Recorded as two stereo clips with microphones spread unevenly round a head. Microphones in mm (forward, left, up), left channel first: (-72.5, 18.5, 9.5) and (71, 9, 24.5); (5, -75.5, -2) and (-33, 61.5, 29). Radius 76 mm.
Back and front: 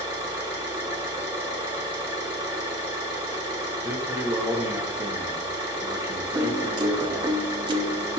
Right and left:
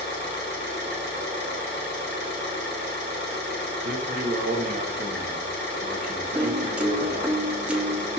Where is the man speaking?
70° left, 0.7 m.